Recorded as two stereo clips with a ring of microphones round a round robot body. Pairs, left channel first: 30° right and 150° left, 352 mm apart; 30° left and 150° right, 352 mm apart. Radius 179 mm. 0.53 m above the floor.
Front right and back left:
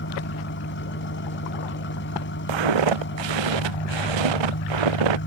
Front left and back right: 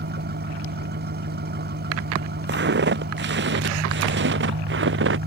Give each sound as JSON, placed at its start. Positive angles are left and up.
{"t": 0.0, "sound": "an engine running", "azimuth_deg": -90}
{"t": 2.5, "sound": "footsteps", "azimuth_deg": 150}